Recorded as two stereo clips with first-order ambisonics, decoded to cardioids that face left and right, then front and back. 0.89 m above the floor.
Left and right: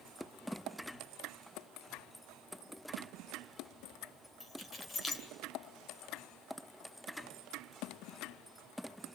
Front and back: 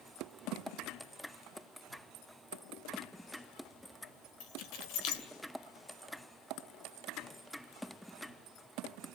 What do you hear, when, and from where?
4.4 s keys jangling: 20° left, 2.5 m